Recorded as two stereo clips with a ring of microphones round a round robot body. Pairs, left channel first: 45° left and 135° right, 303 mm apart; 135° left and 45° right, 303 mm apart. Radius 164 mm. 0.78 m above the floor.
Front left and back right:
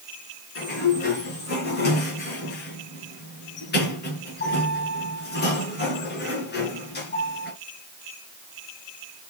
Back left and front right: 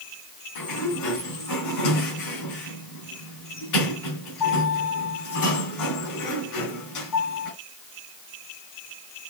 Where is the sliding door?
105° left, 3.5 m.